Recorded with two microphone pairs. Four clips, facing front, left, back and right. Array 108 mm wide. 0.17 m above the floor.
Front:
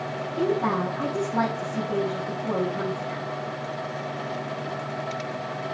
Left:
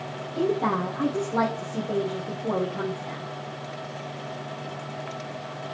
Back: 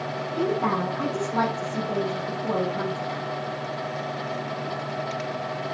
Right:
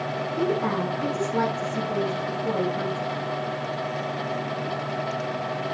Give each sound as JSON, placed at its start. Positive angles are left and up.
{"t": 0.3, "sound": "a woman speaking", "azimuth_deg": 130, "distance_m": 4.5}